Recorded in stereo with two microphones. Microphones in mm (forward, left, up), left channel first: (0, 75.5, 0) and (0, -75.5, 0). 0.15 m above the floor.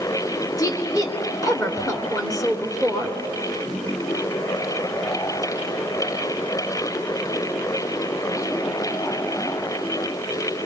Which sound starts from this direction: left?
A woman speaking, at 0.6 s.